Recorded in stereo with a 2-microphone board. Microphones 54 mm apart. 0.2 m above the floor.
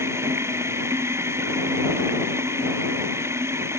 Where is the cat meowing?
No cat meowing in this recording.